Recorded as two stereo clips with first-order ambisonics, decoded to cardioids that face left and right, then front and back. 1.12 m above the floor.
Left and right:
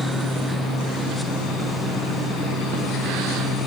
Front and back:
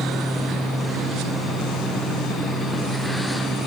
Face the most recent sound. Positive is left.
No sound to turn to.